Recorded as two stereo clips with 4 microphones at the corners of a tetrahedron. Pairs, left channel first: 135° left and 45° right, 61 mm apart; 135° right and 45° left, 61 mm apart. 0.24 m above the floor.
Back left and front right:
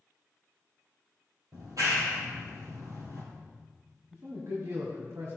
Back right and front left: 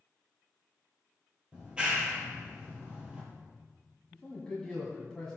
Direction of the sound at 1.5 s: 30° right.